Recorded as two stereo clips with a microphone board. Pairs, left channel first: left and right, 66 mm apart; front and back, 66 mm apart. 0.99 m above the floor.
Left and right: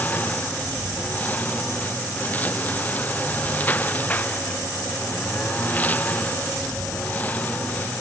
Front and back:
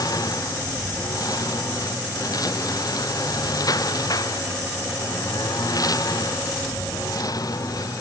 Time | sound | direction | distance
0.0 | a lawn mower | 25° left | ?